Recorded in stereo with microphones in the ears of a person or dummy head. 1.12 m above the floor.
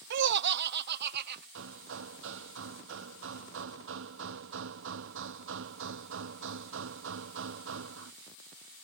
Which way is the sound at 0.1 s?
65° right (ahead or behind).